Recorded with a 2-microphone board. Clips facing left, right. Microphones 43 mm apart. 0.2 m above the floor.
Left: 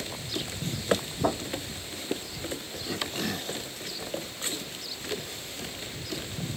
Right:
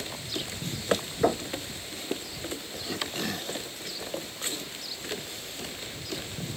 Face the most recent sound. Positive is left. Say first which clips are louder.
# right 3 dB
turn(degrees=-70)  # may be behind; listen again after turning